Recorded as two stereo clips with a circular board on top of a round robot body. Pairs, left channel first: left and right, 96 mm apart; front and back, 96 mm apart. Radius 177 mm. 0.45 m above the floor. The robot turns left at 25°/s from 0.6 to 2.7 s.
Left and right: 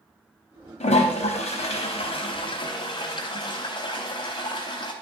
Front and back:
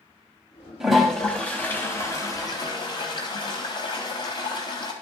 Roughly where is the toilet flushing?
Left.